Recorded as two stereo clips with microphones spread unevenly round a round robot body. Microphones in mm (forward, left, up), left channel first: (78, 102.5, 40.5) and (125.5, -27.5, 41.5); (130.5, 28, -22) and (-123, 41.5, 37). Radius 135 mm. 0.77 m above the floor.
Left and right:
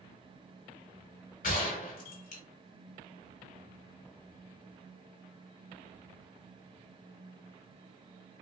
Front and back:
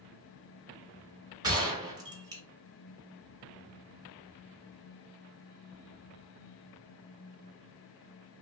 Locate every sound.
1.4 s a gunshot: 110° left, 0.9 m